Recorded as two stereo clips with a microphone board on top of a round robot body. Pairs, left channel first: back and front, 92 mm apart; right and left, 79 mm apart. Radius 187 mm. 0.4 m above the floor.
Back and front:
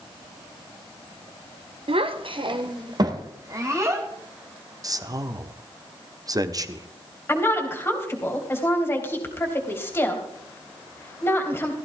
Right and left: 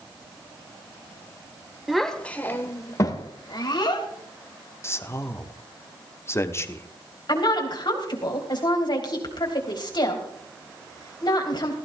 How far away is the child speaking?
About 1.4 m.